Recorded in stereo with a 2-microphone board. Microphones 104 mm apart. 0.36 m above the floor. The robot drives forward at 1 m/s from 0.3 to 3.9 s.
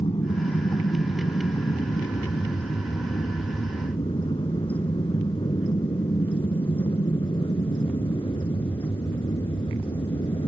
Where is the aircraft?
60° left (ahead or behind); by 10.5 s 55° left (ahead or behind).